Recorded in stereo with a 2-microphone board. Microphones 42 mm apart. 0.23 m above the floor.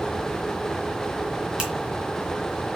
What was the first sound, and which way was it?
A finger snap, 20° right (ahead or behind).